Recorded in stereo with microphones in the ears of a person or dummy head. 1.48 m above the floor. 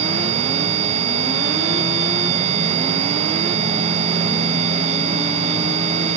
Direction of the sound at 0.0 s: 40° right (ahead or behind).